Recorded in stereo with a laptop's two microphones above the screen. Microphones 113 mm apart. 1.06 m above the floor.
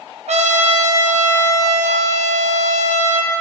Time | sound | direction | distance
0.3 | a trumpet | 65° right (ahead or behind) | 0.7 m